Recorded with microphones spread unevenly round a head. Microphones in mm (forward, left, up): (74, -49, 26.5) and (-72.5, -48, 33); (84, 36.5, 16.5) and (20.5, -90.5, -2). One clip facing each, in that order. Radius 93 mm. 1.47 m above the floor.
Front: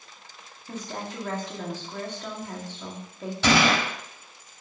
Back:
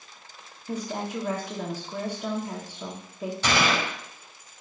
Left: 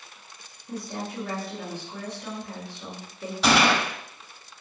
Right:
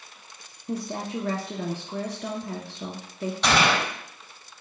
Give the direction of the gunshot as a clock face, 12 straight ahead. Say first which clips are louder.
Front 4 dB, left 2 dB; 1 o'clock.